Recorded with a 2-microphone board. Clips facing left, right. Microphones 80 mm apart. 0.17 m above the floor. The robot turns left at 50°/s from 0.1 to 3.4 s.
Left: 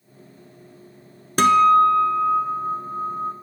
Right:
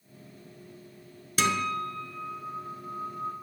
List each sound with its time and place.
1.4 s a guitar: 120° left, 0.7 m; by 3.3 s 20° left, 0.7 m